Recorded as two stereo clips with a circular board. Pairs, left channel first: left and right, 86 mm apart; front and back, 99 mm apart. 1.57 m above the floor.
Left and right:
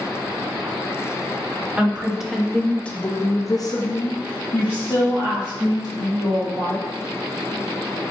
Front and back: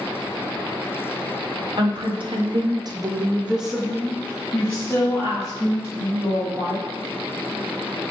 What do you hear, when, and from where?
1.8 s a woman speaking: 165° right, 1.0 m; by 6.8 s 50° left, 2 m